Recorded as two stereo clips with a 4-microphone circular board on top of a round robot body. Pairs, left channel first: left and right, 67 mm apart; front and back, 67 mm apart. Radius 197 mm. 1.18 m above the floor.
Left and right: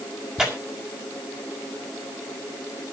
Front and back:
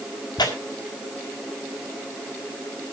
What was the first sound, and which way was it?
Tearing paper, 10° right.